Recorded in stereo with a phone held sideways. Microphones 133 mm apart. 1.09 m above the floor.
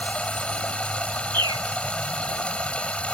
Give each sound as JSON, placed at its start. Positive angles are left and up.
{"t": 0.0, "sound": "running water", "side_deg": 10}
{"t": 1.3, "sound": "a bird", "side_deg": -35}